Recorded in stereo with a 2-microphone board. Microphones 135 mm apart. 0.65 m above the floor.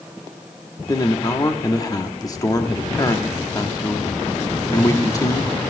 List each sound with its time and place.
0.9 s a man speaking: 25° left (ahead or behind), 1.0 m